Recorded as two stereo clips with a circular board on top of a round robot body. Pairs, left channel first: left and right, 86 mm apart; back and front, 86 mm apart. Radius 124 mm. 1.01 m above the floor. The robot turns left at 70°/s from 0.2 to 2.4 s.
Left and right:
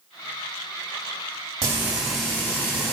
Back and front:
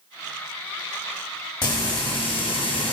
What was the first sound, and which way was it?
Frying, 145° right.